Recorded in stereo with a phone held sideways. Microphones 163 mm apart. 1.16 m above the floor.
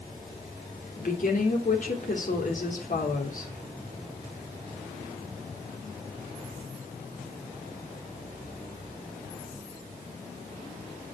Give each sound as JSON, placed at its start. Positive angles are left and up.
{"t": 1.0, "sound": "a woman speaking", "side_deg": 60, "distance_m": 3.5}